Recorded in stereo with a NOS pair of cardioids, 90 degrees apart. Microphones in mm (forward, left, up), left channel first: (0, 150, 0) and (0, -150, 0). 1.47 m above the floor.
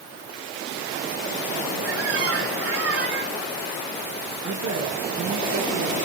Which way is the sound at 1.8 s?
55° right.